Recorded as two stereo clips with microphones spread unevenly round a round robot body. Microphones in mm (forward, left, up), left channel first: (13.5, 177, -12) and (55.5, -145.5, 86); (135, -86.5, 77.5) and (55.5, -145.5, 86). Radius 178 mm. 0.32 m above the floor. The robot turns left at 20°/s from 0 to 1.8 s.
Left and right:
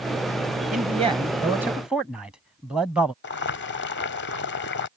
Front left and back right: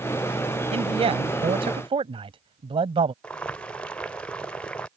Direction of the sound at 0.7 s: 155° right.